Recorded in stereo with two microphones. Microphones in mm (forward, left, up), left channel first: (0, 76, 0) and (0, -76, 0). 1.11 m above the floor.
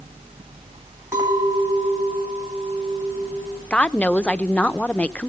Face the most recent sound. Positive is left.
turn(degrees=10)  # may be behind; listen again after turning